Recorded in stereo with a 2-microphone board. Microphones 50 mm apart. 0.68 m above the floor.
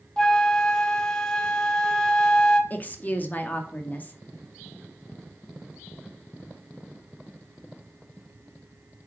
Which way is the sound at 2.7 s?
35° left (ahead or behind).